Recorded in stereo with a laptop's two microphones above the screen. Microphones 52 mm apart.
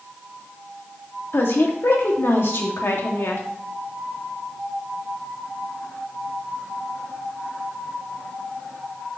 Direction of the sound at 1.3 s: 55° left (ahead or behind).